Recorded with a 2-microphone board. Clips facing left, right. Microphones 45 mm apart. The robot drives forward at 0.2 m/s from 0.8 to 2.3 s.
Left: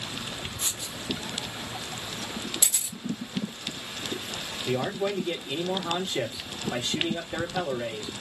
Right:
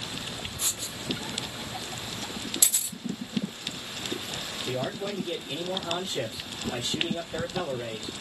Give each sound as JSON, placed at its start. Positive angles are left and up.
{"t": 0.6, "sound": "writing", "side_deg": 10, "distance_m": 0.7}
{"t": 2.6, "sound": "a camera shutter", "side_deg": 10, "distance_m": 1.5}
{"t": 4.7, "sound": "a man speaking", "side_deg": 55, "distance_m": 1.7}